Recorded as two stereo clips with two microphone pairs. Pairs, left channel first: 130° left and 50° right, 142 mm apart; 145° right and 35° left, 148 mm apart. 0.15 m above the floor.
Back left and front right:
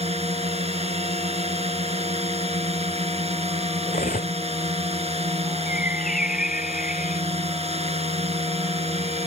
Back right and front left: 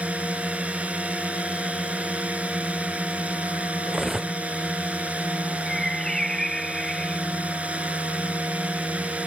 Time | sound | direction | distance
0.0 | a drone | 40° right | ?
3.9 | cutlery clinking | 125° left | ?
5.7 | a bird | 130° left | ?